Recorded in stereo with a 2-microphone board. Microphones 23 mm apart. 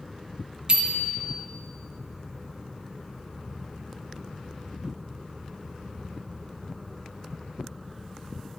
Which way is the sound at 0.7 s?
40° right (ahead or behind).